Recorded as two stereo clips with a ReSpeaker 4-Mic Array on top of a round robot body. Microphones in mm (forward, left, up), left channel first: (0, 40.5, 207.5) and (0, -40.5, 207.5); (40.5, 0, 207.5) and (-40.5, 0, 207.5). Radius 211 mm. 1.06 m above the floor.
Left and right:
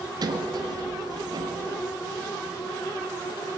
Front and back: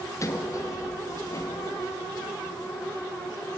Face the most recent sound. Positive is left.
turn(degrees=-50)